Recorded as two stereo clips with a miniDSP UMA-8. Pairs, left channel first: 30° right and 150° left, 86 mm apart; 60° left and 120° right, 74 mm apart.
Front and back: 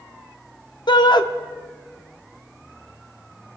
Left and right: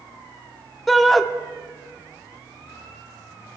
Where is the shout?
30° right, 1.0 m.